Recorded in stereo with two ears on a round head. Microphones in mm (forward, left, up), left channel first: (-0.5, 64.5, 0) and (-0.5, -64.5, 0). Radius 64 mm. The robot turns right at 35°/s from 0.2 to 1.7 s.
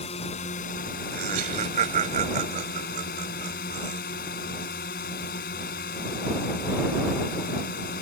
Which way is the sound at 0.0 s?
45° left.